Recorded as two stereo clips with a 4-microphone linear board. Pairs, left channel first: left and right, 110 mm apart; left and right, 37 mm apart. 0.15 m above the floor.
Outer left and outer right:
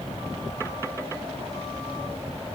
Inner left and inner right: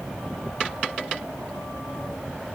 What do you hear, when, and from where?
Only background noise.